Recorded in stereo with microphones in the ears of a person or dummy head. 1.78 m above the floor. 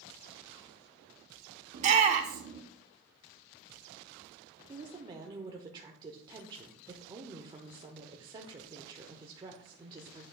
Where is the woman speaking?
25° right (ahead or behind), 0.8 m.